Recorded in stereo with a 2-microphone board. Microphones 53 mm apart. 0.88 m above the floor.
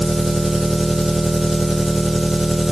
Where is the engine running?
5° right (ahead or behind), 0.9 m.